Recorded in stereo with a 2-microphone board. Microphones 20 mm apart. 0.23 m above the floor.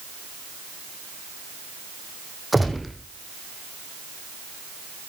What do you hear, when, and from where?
2.5 s a gunshot: 5° right (ahead or behind), 3.5 m